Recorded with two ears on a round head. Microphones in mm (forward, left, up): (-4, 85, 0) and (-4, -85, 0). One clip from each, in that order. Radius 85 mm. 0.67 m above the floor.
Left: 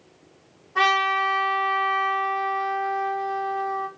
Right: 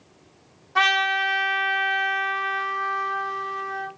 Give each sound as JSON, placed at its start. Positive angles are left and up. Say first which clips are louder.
{"t": 0.8, "sound": "a trumpet", "louder": "even", "side_deg": -80, "distance_m": 1.3}